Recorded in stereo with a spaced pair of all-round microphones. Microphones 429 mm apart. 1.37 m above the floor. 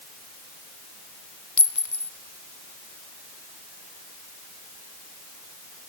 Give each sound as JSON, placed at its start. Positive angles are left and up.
{"t": 1.6, "sound": "a clink", "side_deg": 45, "distance_m": 0.8}